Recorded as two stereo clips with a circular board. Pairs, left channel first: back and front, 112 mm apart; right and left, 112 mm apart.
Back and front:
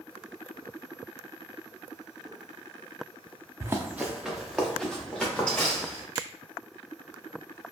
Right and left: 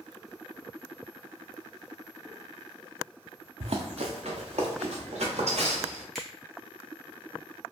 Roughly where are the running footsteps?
Ahead left.